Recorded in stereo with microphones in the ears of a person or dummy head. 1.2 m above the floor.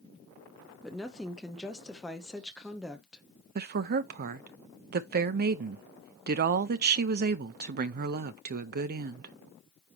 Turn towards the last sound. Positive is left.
turn(degrees=-50)  # may be behind; listen again after turning